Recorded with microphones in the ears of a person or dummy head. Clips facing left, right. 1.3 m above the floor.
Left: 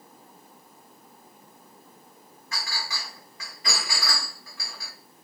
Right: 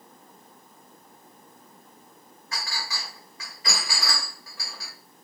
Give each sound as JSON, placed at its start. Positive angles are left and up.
{"t": 2.5, "sound": "a clink", "side_deg": -40, "distance_m": 1.6}